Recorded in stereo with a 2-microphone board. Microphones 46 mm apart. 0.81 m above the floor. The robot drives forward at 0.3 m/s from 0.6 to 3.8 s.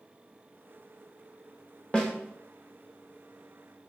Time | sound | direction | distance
1.9 | a snare drum | 20° left (ahead or behind) | 1.1 m